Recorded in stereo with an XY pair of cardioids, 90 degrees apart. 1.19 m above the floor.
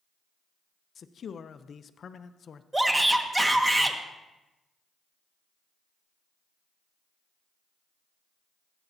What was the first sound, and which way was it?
A man speaking, 55° left.